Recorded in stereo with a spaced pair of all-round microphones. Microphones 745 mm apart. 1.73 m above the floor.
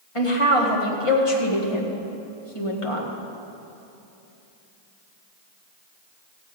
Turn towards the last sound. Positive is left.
turn(degrees=45)  # may be behind; listen again after turning